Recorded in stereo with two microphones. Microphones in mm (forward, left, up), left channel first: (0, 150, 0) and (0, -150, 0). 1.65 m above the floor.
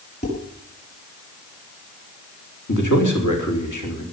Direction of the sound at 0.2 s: 35° left (ahead or behind).